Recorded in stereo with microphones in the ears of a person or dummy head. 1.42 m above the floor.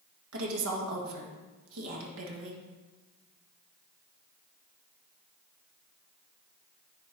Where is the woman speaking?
80° right, 1.7 m.